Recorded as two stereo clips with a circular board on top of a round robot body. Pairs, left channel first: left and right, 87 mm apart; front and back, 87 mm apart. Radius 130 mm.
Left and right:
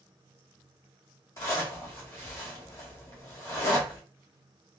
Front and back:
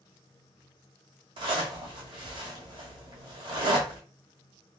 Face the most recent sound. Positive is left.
turn(degrees=150)